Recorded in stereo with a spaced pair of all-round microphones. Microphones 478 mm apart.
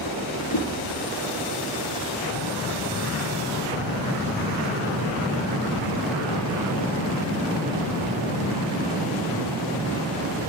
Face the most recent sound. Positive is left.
turn(degrees=55)  # may be behind; listen again after turning